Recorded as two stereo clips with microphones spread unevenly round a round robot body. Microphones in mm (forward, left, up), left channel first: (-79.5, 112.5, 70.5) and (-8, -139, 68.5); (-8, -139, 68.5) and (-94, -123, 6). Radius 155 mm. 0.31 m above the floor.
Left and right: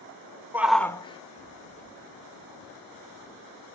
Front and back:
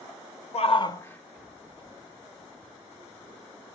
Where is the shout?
Straight ahead, 1.1 m; by 3.8 s 165° left, 4.5 m.